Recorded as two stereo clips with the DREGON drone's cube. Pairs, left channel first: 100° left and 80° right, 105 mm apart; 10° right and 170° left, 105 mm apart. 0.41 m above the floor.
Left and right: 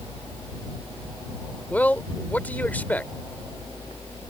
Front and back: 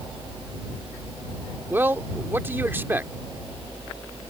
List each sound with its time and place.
1.7 s a man speaking: 140° left